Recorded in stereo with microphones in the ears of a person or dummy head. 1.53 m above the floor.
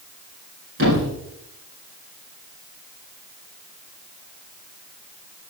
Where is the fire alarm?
No fire alarm in this recording.